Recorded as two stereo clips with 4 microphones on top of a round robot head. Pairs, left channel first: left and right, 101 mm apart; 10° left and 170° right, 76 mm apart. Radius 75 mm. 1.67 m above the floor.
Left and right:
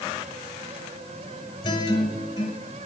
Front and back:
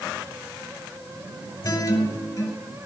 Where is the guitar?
45° left, 5.5 m.